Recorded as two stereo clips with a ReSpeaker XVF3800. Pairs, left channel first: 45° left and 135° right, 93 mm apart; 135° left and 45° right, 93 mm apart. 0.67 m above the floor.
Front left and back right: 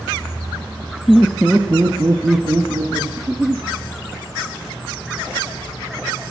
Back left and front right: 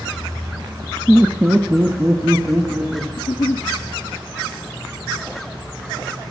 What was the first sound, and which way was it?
Laughter, 20° left.